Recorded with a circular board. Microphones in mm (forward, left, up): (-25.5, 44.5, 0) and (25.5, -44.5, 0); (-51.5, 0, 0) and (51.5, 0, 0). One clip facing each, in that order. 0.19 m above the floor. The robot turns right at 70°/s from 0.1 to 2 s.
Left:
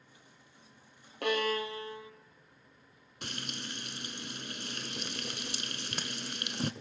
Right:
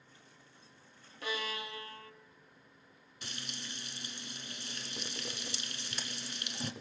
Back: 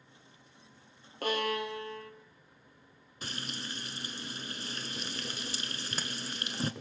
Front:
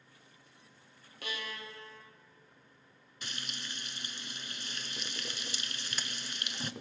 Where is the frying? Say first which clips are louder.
Left 5 dB, back 4 dB; 135° left, 0.8 m.